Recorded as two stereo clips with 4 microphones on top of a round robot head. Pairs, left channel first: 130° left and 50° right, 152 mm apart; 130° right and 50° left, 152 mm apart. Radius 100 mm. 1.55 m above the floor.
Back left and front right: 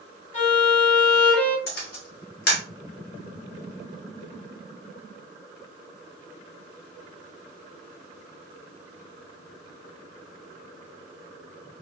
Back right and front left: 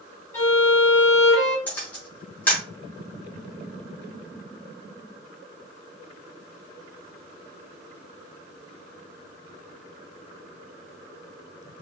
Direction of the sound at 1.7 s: 155° left.